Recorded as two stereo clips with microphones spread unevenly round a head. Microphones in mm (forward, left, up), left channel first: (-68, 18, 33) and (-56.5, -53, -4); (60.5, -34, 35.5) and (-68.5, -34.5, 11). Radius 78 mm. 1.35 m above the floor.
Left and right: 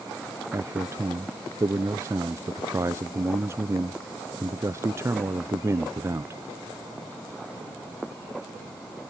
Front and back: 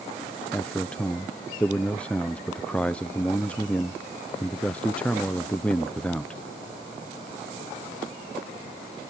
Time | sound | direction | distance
0.5 | a man speaking | 85° right | ?